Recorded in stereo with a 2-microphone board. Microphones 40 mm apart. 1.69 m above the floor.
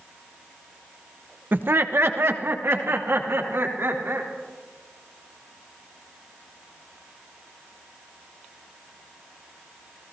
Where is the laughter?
50° right (ahead or behind), 0.8 m; by 4.3 s 80° right, 4 m.